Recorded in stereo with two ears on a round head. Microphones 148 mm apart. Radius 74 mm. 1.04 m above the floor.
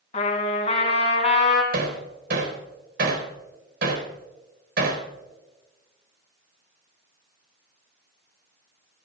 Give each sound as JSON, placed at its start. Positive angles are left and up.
{"t": 0.1, "sound": "a trumpet", "side_deg": 40, "distance_m": 2.5}
{"t": 1.7, "sound": "hammering", "side_deg": -70, "distance_m": 4.0}